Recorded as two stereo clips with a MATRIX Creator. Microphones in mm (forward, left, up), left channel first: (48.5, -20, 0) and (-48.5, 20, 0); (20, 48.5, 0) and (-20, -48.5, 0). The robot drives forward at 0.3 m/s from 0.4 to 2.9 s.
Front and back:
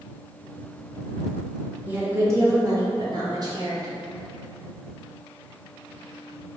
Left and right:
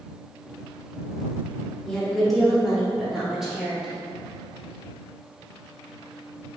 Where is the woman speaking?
140° left, 0.6 m; by 4.0 s 165° left, 0.8 m.